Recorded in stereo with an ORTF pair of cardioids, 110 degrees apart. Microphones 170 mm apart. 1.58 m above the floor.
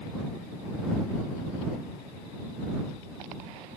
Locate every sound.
Only background noise.